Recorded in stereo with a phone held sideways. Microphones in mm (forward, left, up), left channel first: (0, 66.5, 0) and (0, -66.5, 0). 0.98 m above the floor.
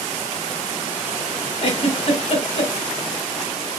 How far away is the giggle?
About 1.1 m.